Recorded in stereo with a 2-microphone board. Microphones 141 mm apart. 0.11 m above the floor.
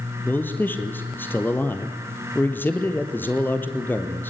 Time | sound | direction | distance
0.2 | a man speaking | 15° left (ahead or behind) | 2.5 m